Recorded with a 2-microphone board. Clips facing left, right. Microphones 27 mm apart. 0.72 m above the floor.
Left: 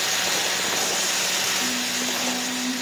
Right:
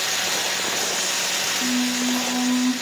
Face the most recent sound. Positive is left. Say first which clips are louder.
# right 3 dB
turn(degrees=-70)  # may be behind; listen again after turning